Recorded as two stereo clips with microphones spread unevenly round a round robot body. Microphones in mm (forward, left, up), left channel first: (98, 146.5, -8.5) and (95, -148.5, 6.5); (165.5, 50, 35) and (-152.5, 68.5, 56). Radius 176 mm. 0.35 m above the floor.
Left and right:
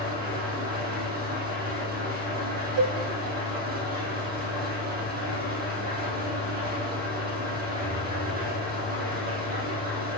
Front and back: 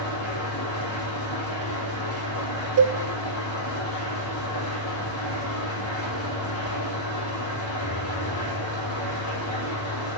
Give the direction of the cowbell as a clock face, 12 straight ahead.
5 o'clock.